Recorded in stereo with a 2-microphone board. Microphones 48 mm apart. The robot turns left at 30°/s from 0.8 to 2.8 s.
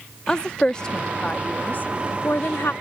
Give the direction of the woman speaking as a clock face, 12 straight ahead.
7 o'clock.